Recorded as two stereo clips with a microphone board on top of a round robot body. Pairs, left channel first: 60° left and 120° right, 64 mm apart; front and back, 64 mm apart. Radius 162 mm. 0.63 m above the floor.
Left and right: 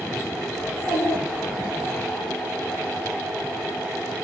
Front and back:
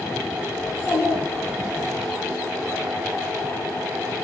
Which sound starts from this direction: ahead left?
A child speaking, at 0.6 s.